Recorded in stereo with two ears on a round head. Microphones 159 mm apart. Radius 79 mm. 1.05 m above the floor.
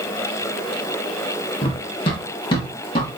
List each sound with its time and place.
1.6 s running footsteps: 30° left (ahead or behind), 2.5 m